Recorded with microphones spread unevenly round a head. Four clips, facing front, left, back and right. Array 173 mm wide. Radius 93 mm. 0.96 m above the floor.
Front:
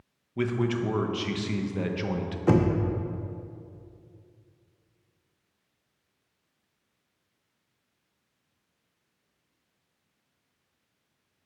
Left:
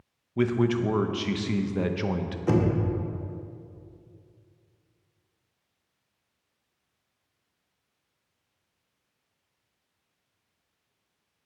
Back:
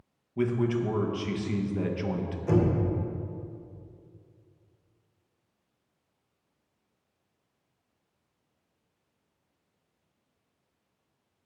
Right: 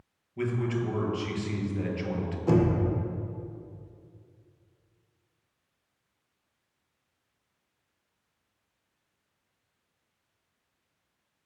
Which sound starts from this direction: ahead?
Knocking, at 2.5 s.